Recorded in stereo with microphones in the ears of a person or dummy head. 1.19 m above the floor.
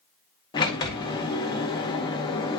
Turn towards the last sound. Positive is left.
turn(degrees=20)  # may be behind; listen again after turning